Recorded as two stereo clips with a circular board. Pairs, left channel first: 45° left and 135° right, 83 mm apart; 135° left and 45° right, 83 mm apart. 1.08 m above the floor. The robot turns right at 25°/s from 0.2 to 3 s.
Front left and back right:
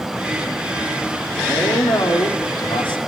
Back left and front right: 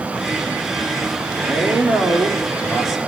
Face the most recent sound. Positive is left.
turn(degrees=45)